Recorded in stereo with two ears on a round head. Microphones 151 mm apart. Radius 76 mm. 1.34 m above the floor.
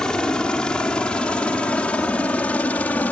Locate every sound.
0.0 s a helicopter: 5° left (ahead or behind); by 3.1 s 10° left (ahead or behind)